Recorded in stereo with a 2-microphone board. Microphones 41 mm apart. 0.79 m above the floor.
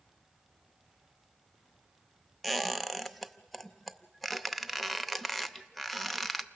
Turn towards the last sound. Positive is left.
turn(degrees=5)  # may be behind; listen again after turning